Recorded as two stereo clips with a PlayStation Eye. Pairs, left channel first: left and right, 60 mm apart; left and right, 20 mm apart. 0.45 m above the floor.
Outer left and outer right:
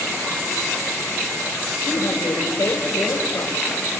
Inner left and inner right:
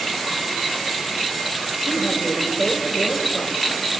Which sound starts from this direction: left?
A woman speaking, at 1.8 s.